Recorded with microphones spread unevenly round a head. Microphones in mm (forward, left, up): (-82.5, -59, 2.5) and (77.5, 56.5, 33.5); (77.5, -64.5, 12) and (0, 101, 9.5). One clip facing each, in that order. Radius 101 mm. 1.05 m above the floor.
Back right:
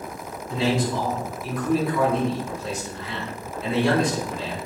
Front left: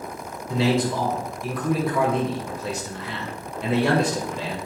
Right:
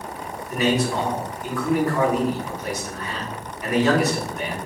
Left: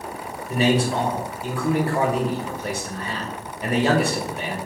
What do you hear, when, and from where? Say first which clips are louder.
0.5 s a man speaking: front left 2 dB, left 1 dB; 60° left, 1.6 m